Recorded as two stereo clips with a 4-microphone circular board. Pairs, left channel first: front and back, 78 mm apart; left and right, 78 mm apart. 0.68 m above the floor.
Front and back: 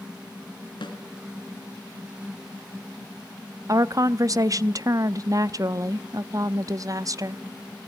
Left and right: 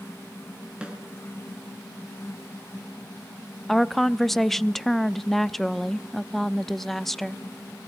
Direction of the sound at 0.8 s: 10° right.